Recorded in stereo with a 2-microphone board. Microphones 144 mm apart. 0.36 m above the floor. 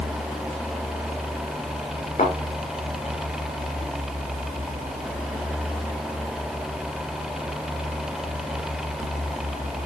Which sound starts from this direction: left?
A thud, at 2.2 s.